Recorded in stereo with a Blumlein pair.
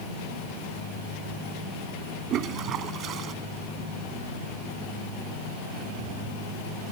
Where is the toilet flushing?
30° right.